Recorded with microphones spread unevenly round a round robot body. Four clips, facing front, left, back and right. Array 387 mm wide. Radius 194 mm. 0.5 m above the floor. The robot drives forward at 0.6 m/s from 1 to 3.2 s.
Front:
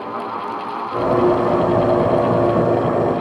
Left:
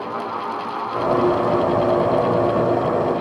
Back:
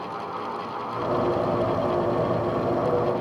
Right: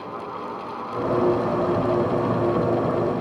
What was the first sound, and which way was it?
Only background noise.